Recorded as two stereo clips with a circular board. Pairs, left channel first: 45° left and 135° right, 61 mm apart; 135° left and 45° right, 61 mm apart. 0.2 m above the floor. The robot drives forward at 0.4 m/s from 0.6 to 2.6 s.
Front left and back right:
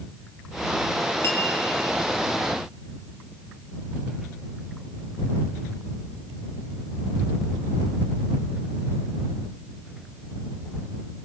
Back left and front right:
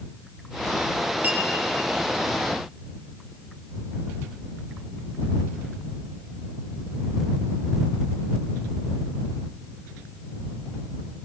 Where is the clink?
15° left, 2.5 m; by 1.4 s 20° left, 2.5 m.